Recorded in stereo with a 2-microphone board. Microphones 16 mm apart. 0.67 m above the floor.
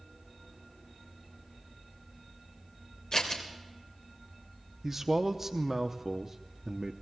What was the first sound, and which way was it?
Scissors, 40° left (ahead or behind).